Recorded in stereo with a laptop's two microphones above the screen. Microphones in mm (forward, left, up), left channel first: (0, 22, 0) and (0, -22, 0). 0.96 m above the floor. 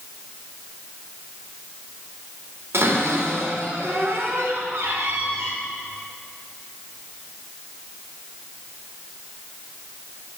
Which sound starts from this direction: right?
A cupboard door, at 2.7 s.